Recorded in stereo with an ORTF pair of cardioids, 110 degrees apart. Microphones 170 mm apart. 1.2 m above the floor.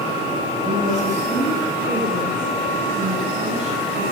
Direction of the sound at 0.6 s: 45° right.